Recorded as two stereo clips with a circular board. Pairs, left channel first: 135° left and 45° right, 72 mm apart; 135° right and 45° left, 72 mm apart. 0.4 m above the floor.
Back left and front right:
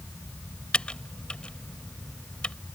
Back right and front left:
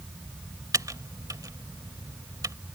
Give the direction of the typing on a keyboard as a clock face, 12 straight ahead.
10 o'clock.